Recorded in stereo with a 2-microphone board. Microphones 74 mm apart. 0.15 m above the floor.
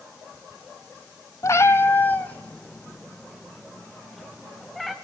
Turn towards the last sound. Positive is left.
turn(degrees=0)  # may be behind; listen again after turning